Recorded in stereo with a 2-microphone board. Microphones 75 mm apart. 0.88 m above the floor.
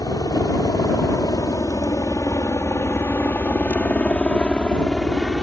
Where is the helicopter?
60° left (ahead or behind); by 5.4 s 5° left (ahead or behind).